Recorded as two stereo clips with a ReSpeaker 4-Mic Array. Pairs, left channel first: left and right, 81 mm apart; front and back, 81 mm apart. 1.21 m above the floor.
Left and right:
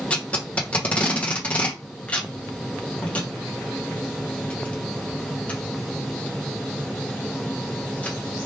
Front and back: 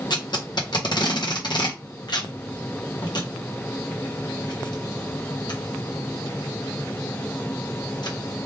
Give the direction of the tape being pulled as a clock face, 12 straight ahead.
11 o'clock.